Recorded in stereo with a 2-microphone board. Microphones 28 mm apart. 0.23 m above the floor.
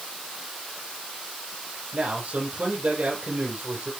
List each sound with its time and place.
1.9 s a man speaking: 60° right (ahead or behind), 6 m